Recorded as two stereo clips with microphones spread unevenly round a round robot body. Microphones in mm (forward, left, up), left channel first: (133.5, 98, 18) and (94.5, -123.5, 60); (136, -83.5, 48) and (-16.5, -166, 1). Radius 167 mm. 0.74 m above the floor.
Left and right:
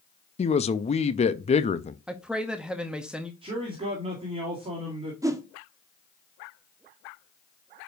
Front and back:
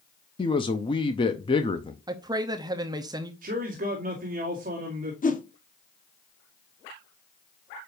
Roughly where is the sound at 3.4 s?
Behind.